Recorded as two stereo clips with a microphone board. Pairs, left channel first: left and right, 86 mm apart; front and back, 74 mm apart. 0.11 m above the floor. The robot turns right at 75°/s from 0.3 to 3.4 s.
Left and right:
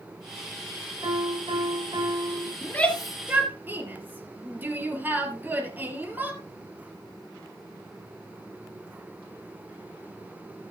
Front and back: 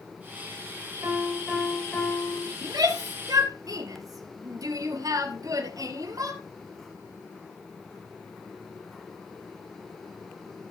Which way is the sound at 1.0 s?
135° right.